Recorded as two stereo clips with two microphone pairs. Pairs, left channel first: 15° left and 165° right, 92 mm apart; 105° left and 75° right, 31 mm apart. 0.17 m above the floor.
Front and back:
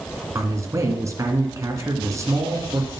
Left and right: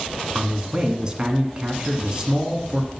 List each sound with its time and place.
0.3 s a man speaking: 125° right, 1.5 m